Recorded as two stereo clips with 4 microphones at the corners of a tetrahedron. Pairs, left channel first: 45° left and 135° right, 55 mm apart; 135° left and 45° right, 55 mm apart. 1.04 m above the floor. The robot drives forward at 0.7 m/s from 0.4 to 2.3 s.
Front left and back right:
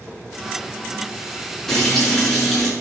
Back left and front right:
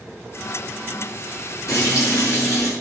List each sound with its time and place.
1.7 s frying: 125° left, 8 m; by 2.7 s 130° left, 8.5 m